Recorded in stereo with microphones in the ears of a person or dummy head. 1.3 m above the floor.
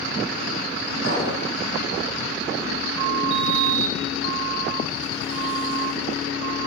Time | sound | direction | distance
1.0 | a clink | 55° right (ahead or behind) | 7.5 m
3.3 | a sliding door | 30° left (ahead or behind) | 3 m